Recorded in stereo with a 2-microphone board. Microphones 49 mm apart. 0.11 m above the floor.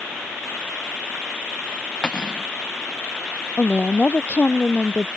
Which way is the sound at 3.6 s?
30° left (ahead or behind).